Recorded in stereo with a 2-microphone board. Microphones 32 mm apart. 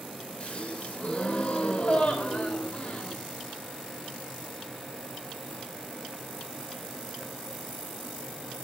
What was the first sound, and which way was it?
A gasp, 40° left (ahead or behind).